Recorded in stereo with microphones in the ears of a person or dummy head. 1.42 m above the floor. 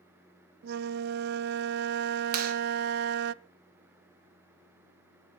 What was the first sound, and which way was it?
A flute, 60° right (ahead or behind).